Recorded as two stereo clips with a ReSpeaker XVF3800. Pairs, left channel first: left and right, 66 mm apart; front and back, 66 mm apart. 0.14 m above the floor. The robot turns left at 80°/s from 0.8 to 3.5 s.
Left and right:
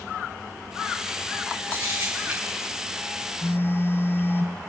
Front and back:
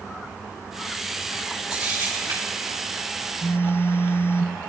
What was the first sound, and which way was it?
A camera shutter, 100° right.